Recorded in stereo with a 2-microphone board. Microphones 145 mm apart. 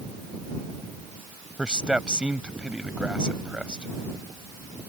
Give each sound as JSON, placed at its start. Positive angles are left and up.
{"t": 1.6, "sound": "a man speaking", "side_deg": -5}